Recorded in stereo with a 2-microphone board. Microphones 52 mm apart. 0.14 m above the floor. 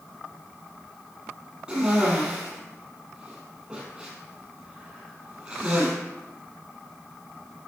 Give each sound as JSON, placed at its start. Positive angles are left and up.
{"t": 1.7, "sound": "a cough", "side_deg": -20, "distance_m": 5.5}